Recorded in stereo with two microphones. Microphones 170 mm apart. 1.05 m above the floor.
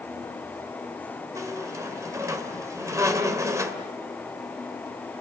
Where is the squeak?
20° right (ahead or behind), 2 m.